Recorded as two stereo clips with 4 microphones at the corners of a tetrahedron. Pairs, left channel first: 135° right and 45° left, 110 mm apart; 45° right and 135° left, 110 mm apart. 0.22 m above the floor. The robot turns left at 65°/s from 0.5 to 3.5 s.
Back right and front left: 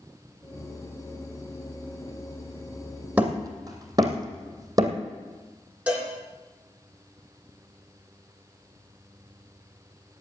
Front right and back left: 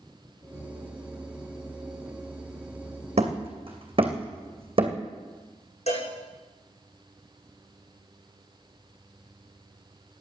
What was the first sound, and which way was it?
Hammering, 120° left.